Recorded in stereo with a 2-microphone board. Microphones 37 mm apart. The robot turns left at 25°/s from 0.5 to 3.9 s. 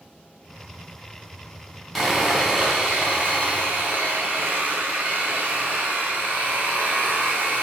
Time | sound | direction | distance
1.9 | sawing | straight ahead | 3.5 m